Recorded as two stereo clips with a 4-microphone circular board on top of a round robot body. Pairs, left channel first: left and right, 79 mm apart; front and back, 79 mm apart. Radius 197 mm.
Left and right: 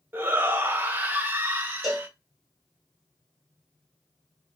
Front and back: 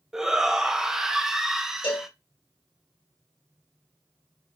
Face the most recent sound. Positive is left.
turn(degrees=0)